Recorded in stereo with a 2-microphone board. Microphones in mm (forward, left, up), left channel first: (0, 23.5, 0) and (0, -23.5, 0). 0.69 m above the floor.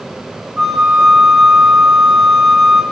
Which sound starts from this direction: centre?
A flute, at 0.6 s.